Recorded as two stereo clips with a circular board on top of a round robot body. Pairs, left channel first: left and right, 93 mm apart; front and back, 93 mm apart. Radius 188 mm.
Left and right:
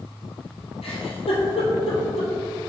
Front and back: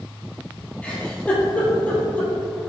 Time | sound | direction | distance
0.8 | a giggle | 75° left | 2 m